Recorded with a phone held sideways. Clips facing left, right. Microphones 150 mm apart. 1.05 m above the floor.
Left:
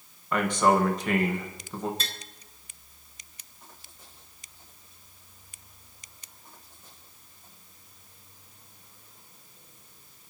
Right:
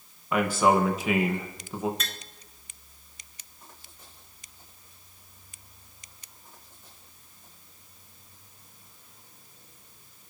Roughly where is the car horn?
No car horn in this recording.